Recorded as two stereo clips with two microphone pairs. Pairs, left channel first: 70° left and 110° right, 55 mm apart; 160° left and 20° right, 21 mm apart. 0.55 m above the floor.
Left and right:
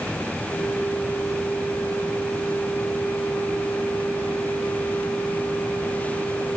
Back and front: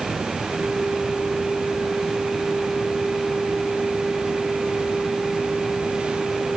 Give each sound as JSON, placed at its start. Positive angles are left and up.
{"t": 0.5, "sound": "a flute", "azimuth_deg": 45, "distance_m": 5.0}